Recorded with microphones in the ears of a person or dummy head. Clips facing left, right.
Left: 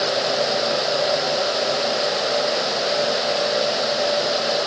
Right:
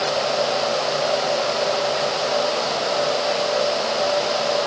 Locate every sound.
Only background noise.